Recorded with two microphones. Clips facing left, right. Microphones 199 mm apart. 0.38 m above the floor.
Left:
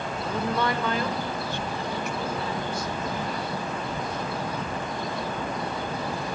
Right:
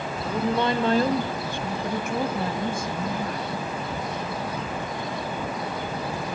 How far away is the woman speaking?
About 1.5 m.